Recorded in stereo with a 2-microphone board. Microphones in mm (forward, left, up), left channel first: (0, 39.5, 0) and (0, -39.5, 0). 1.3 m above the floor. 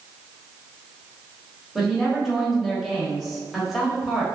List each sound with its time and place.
1.8 s a woman speaking: centre (ahead or behind), 1.0 m